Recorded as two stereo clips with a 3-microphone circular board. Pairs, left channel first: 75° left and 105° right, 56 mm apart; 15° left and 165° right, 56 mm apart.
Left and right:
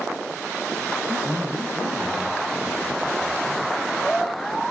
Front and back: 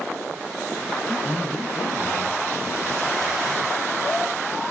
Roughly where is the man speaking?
Right.